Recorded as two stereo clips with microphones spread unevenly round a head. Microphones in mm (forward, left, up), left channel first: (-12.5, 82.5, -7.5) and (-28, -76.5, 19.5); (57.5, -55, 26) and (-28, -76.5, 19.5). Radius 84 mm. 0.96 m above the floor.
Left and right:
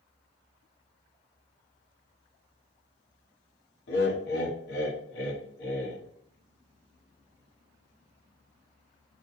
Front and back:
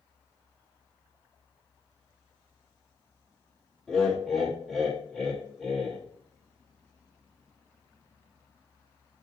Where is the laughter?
100° left, 1.3 m.